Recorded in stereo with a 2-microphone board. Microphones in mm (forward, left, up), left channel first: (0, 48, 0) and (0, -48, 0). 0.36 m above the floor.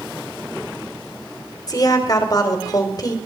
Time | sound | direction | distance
1.7 | a woman speaking | 40° left (ahead or behind) | 1.8 m